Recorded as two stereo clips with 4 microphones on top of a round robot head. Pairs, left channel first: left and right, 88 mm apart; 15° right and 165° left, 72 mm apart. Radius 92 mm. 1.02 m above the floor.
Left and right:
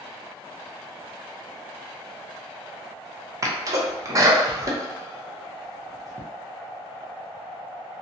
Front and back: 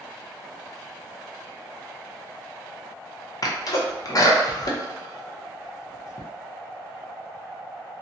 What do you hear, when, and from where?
3.4 s a sneeze: 40° right, 0.7 m